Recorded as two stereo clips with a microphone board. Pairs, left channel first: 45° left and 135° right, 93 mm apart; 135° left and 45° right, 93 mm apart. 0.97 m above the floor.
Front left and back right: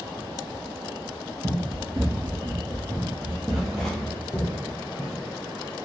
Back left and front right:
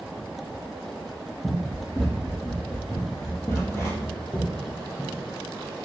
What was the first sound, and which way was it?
Running footsteps, 170° right.